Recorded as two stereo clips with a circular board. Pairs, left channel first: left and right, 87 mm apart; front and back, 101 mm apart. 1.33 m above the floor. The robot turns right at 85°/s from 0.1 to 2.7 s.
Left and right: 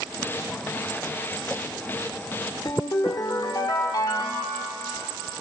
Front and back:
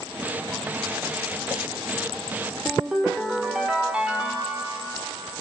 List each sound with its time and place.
2.6 s a ringtone: 95° left, 1.4 m; by 4.6 s 100° left, 1.4 m